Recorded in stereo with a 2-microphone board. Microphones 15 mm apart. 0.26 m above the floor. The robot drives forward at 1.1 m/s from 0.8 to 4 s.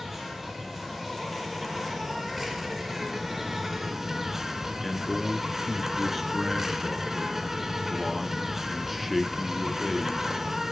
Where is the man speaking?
5° right (ahead or behind), 3 m.